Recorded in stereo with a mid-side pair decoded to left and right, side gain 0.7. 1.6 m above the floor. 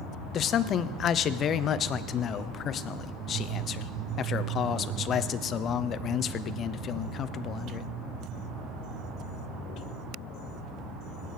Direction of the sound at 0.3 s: 40° left.